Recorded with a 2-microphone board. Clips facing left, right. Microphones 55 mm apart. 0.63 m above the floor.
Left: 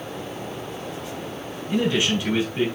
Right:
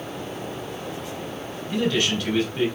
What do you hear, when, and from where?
1.7 s a man speaking: 20° left (ahead or behind), 3.5 m